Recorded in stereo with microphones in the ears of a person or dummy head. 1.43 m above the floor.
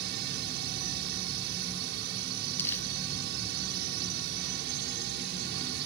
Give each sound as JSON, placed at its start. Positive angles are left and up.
{"t": 0.0, "sound": "a drone", "side_deg": -60}
{"t": 2.6, "sound": "crumpling", "side_deg": 15}